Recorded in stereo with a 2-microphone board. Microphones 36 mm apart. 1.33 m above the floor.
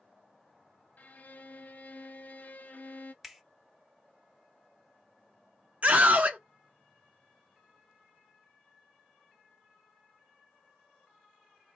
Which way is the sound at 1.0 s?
50° left (ahead or behind).